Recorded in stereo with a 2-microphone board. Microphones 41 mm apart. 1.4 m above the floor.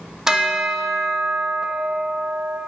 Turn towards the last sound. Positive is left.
turn(degrees=-15)  # may be behind; listen again after turning